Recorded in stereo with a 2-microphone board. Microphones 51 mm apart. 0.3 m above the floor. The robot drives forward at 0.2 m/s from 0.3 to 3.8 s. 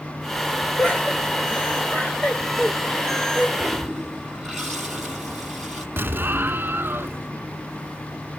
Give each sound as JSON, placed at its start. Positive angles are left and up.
{"t": 0.8, "sound": "laughter", "side_deg": 30, "distance_m": 1.2}
{"t": 3.6, "sound": "a toilet flushing", "side_deg": 5, "distance_m": 1.8}
{"t": 6.0, "sound": "an explosion", "side_deg": -45, "distance_m": 0.5}